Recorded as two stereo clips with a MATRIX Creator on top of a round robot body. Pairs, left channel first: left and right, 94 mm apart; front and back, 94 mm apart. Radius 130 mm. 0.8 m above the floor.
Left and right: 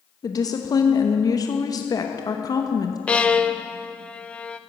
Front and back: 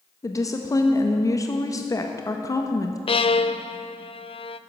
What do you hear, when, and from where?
0.2 s a woman speaking: 50° left, 1.2 m
3.1 s a violin: 10° left, 0.7 m